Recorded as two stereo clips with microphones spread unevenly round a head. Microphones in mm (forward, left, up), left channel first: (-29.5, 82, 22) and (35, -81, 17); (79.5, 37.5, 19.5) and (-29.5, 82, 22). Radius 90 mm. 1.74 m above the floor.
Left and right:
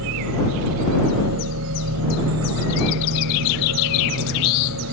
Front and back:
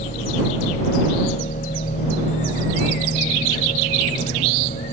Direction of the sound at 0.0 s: 75° right.